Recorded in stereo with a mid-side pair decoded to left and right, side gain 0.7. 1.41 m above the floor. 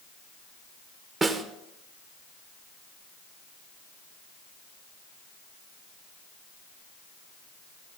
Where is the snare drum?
25° right, 1.4 m.